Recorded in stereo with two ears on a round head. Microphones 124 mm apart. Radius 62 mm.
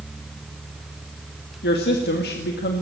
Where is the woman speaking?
85° left, 2 m.